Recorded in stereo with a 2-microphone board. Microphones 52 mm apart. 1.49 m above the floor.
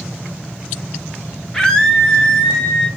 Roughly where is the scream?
Centre.